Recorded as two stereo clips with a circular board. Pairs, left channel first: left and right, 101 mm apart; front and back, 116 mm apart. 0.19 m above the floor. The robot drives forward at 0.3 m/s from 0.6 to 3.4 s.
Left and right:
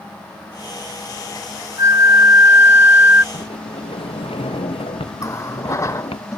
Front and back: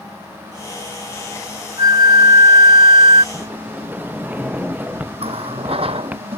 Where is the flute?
135° right; by 3.2 s 160° right.